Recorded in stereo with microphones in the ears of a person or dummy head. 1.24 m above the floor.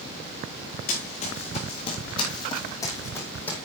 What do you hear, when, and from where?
0.9 s running footsteps: 35° left (ahead or behind), 3.5 m; by 3.6 s centre (ahead or behind), 2.5 m